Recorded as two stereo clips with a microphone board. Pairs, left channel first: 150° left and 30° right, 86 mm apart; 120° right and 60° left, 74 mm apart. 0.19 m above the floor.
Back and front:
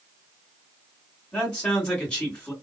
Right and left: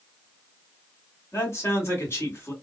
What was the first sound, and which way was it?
A man speaking, 140° right.